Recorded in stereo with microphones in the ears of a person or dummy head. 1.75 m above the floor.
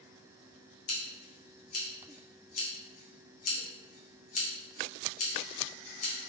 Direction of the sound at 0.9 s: 40° left (ahead or behind).